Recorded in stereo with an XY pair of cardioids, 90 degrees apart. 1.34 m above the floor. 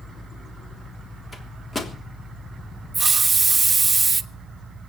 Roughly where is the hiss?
Ahead right.